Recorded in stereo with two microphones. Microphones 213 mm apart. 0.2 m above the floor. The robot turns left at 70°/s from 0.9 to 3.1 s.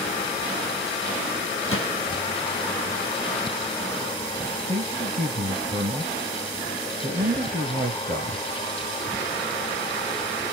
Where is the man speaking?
35° right (ahead or behind), 4 m.